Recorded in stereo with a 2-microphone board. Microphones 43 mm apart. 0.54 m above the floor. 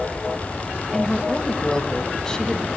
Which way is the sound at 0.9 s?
5° left (ahead or behind).